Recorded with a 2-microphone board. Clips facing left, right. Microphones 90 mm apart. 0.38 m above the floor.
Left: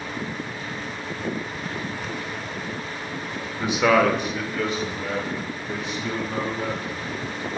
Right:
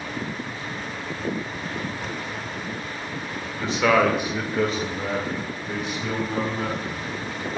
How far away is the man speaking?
About 1.1 m.